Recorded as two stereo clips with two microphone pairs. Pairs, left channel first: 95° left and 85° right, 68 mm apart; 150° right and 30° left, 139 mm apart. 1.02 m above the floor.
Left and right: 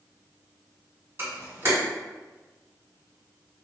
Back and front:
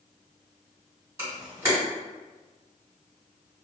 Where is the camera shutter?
35° right, 1.6 m.